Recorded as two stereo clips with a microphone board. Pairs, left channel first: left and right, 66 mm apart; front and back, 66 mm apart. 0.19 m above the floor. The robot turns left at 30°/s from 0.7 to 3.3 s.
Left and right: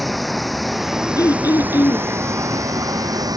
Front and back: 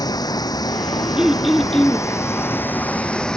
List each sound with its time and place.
0.0 s running water: straight ahead; by 3.4 s 80° right
1.2 s throat clearing: 100° left; by 2.1 s 75° left